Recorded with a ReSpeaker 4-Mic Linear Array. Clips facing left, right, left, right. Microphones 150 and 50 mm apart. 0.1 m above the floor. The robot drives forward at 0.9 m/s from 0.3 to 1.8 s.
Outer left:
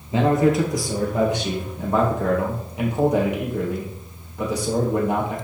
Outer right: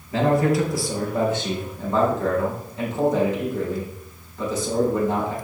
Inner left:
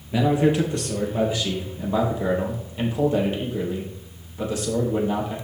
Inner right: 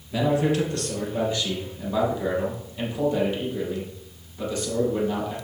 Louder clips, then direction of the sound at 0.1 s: Outer left 1 dB, inner left 3 dB; 20° left (ahead or behind).